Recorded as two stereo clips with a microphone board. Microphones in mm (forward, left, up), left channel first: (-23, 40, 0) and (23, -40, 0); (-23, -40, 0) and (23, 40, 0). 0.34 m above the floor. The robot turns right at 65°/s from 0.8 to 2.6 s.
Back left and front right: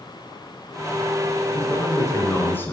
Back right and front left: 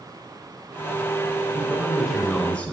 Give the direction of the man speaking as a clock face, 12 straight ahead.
9 o'clock.